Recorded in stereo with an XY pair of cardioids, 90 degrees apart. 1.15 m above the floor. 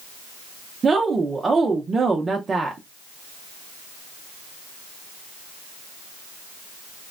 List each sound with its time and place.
0.8 s a woman speaking: 35° right, 0.5 m